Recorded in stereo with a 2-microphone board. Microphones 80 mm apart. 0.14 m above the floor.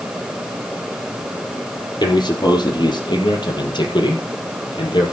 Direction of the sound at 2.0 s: 65° left (ahead or behind).